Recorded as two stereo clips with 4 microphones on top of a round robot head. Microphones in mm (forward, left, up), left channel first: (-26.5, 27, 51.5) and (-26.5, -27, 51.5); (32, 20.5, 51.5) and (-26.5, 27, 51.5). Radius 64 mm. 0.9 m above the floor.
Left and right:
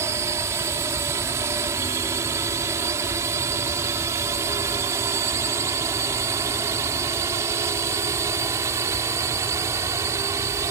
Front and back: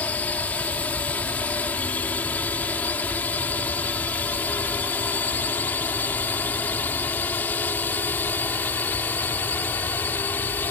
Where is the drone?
70° right; by 10.7 s 65° right.